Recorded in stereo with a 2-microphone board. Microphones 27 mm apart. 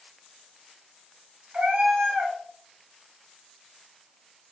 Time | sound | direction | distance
1.5 | a cat meowing | 70° right (ahead or behind) | 1.2 m